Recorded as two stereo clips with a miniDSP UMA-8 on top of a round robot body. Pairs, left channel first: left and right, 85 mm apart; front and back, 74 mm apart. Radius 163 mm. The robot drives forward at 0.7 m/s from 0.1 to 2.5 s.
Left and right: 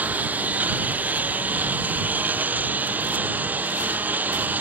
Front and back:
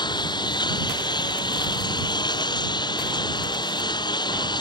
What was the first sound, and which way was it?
A lawn mower, 15° right.